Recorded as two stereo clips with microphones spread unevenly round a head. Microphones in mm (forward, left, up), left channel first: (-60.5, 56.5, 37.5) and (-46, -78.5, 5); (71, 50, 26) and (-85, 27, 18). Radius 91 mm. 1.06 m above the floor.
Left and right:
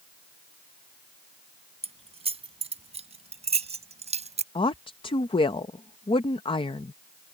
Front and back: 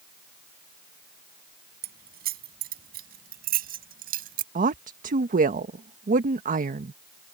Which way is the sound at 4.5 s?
155° left.